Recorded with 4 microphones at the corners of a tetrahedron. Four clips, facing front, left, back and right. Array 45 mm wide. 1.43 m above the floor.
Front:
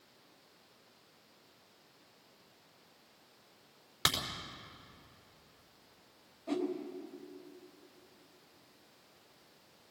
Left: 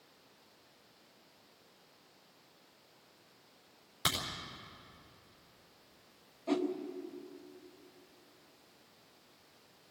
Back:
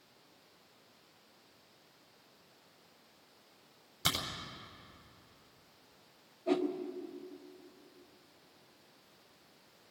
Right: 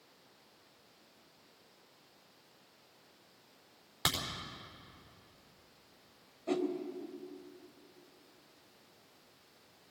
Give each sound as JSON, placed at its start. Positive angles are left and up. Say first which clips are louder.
{"t": 4.0, "sound": "a crack", "louder": "even, front 2 dB", "azimuth_deg": -35, "distance_m": 4.5}
{"t": 6.5, "sound": "a whoosh", "louder": "left 1 dB, back 4 dB", "azimuth_deg": -170, "distance_m": 1.4}